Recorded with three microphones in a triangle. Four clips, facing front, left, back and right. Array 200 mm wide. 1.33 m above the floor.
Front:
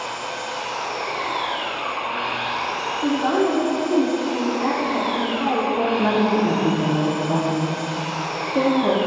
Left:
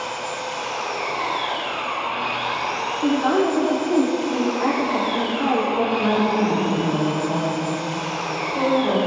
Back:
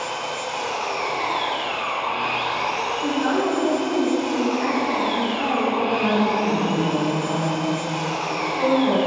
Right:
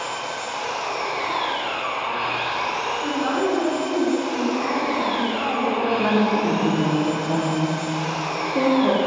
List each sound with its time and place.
0.0 s an engine running: 175° right, 3.5 m
3.0 s a woman speaking: 65° left, 3.5 m
6.0 s a woman speaking: 25° right, 3.5 m